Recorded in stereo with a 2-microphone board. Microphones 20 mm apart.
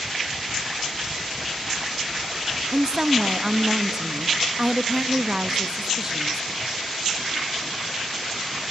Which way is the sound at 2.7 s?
35° right (ahead or behind).